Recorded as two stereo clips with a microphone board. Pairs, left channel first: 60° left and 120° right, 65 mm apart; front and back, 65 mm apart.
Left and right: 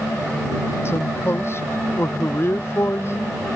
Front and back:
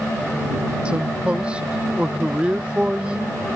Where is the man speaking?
105° left.